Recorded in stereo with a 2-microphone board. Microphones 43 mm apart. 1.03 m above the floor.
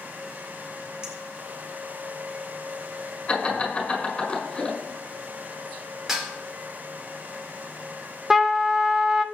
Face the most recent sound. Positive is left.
turn(degrees=-5)  # may be behind; listen again after turning